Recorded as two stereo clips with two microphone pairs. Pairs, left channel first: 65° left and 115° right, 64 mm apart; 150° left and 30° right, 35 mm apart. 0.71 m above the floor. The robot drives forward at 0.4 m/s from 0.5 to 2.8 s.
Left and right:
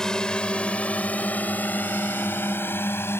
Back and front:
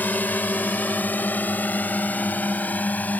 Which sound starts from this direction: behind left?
A drone, at 0.0 s.